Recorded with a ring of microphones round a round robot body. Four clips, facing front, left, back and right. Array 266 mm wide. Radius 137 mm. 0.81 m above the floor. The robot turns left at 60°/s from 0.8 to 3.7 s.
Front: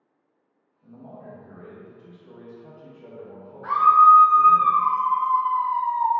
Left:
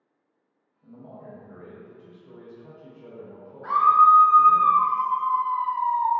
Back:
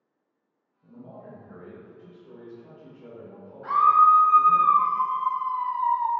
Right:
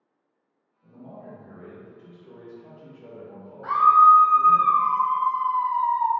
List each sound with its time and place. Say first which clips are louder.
0.8 s a man speaking: right 1 dB, front 2 dB; 35° left, 1.0 m; by 4.6 s 140° right, 1.0 m
3.6 s a scream: right 2 dB, front 3 dB; 110° right, 1.7 m; by 6.1 s 115° right, 1.7 m